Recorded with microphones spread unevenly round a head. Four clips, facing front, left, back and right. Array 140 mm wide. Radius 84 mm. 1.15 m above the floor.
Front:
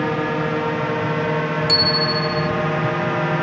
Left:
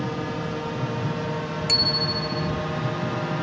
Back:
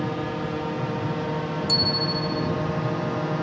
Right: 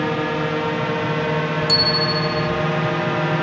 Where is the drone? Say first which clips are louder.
Right 7 dB, front 7 dB; 30° right; by 3.4 s 35° right.